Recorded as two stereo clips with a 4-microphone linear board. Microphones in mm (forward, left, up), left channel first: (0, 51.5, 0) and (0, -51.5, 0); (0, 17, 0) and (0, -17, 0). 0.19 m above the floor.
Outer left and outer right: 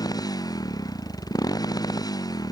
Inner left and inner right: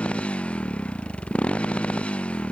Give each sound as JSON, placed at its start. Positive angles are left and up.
{"t": 0.0, "sound": "a motorcycle", "side_deg": 40}